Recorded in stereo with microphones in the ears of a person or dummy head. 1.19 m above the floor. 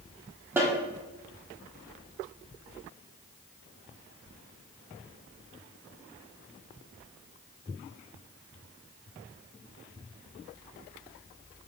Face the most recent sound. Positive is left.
turn(degrees=-15)  # may be behind; listen again after turning